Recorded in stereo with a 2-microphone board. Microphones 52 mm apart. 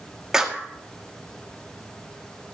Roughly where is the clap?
Centre.